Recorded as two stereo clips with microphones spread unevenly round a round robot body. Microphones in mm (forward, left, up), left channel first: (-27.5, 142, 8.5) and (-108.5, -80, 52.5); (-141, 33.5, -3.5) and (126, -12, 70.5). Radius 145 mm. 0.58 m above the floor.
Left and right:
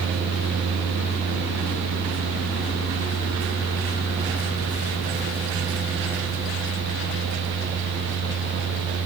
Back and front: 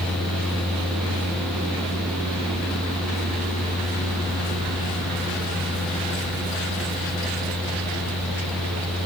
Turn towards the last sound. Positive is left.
No sound to turn to.